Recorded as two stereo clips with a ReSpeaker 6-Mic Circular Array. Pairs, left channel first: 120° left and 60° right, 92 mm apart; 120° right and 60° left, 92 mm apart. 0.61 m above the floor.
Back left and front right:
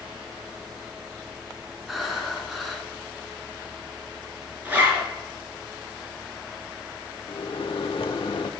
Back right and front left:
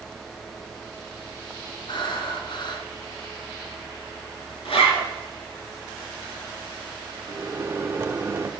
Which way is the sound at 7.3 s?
120° left.